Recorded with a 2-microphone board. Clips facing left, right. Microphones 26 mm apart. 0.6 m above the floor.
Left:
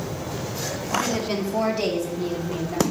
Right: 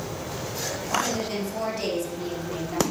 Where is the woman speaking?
35° left (ahead or behind), 3.5 m; by 2.8 s centre (ahead or behind), 4 m.